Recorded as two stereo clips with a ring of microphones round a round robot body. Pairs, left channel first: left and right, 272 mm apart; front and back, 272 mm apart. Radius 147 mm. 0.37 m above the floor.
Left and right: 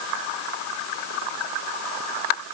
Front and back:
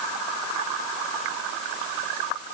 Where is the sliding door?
No sliding door in this recording.